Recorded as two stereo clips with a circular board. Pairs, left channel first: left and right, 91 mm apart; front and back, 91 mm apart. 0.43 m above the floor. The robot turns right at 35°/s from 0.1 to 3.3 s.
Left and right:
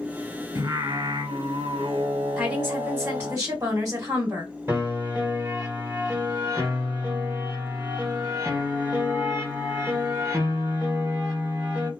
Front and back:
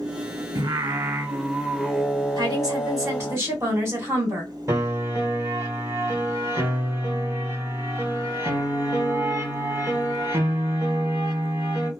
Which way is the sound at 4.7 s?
140° right.